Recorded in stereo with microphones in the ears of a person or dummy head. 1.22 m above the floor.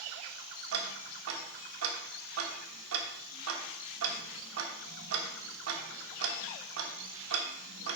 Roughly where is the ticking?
Right.